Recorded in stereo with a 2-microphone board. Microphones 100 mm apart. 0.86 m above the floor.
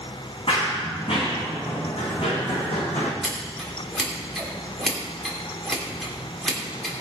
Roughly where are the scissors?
Centre.